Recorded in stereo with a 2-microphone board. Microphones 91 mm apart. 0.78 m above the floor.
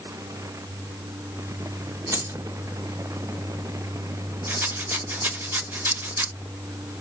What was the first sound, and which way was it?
Keys jangling, 40° right (ahead or behind).